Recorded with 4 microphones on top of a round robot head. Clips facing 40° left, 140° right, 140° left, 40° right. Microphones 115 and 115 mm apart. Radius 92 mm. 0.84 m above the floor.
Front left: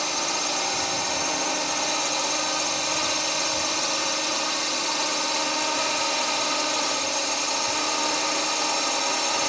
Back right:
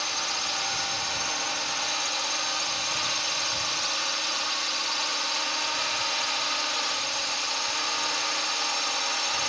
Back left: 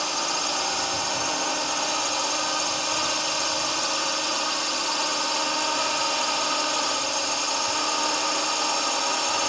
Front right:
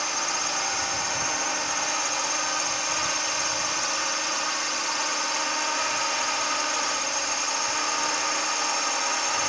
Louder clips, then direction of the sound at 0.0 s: Front left 5 dB, back left 2 dB; 75° left.